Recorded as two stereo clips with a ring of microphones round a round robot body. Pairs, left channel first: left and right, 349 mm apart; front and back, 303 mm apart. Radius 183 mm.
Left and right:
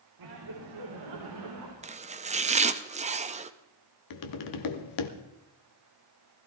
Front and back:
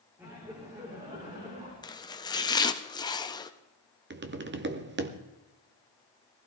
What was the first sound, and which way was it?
Laughter, 100° right.